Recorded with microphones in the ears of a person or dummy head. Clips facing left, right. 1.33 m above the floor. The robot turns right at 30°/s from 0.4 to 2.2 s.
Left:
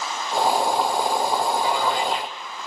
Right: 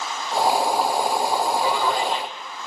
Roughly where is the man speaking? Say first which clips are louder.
Right 1 dB; right.